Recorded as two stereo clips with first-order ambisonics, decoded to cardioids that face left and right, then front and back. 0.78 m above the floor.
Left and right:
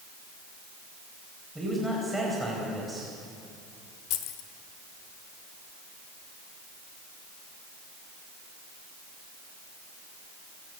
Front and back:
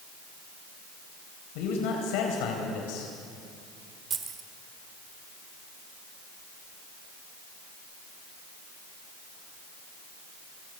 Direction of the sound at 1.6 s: 5° right.